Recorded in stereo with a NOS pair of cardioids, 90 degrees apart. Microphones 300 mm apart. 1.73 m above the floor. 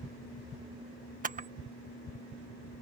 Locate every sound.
1.2 s a camera shutter: 25° right